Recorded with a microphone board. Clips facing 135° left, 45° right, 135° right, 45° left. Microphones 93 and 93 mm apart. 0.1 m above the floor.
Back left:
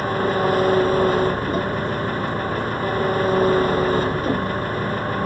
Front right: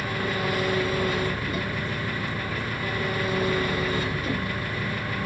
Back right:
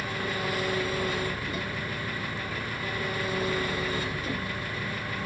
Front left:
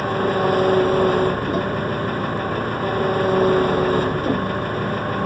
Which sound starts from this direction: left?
An engine running, at 0.0 s.